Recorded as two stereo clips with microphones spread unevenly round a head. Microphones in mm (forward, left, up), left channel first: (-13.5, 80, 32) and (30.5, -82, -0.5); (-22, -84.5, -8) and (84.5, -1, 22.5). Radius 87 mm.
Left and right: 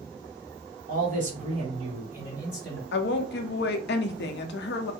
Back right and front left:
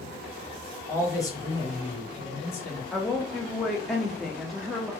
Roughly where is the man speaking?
Right.